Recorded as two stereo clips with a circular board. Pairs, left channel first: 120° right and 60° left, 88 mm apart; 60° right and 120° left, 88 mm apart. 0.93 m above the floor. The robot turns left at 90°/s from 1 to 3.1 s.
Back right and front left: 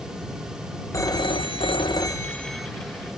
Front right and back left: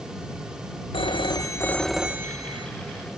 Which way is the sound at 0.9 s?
70° right.